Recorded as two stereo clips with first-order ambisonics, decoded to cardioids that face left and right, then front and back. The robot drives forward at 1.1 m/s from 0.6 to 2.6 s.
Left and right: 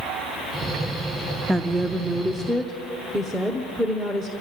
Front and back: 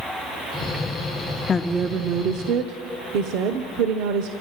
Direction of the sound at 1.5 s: 20° right.